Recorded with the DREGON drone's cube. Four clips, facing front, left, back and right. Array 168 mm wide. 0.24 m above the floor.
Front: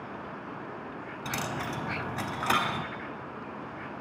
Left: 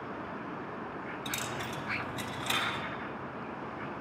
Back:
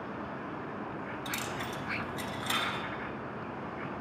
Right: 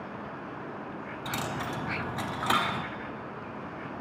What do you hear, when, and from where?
1.2 s a dropped coin: 45° right, 0.5 m